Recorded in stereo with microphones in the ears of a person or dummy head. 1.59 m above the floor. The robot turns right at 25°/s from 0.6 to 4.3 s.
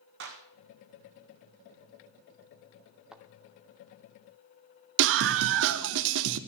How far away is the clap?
About 1.6 m.